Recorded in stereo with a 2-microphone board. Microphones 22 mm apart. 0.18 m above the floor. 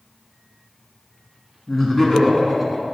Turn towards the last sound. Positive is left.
turn(degrees=-10)  # may be behind; listen again after turning